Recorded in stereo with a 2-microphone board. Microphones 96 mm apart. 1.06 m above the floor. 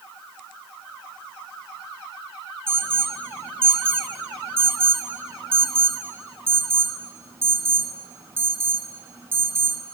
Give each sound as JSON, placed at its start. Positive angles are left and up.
{"t": 2.7, "sound": "an alarm", "side_deg": -25, "distance_m": 5.0}